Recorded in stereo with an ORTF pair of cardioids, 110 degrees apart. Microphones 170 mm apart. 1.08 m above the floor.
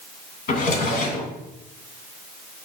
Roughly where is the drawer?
Ahead left.